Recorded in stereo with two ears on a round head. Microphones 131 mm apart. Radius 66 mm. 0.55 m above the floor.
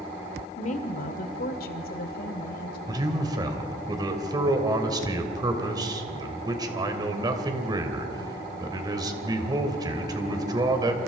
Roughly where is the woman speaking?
Left.